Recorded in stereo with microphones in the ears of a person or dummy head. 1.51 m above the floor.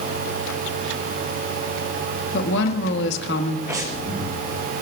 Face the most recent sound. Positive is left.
turn(degrees=-15)  # may be behind; listen again after turning